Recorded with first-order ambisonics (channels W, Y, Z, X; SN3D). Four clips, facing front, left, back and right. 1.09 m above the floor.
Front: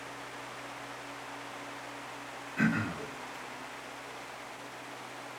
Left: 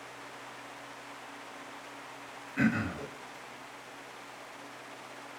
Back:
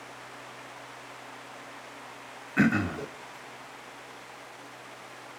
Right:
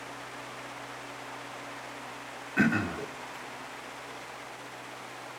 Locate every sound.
2.6 s throat clearing: 150° right, 0.9 m